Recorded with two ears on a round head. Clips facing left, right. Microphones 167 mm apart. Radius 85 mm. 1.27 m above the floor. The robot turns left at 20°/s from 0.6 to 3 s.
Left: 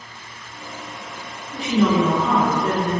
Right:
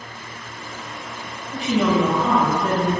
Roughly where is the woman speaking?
Right.